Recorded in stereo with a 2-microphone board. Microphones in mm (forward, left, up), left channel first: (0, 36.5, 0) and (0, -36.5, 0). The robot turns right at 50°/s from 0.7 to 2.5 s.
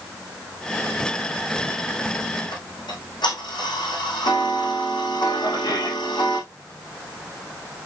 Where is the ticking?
85° left, 5 m.